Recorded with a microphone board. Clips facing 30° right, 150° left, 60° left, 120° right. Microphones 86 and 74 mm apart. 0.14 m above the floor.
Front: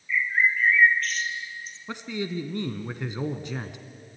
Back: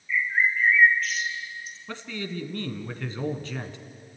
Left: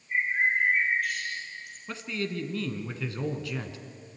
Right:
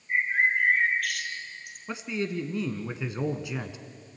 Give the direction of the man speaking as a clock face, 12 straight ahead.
3 o'clock.